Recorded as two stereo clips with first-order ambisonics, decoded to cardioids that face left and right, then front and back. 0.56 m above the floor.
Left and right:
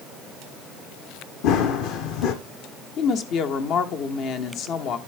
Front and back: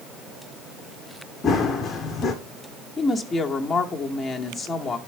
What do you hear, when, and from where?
1.4 s running footsteps: 70° left, 1.2 m
3.0 s a woman speaking: 75° left, 0.9 m